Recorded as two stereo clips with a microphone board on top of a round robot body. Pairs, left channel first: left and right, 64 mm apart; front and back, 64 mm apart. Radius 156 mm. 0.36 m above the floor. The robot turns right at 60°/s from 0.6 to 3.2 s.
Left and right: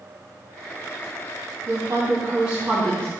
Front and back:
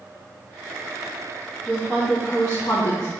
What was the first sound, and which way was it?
A woman speaking, 65° right.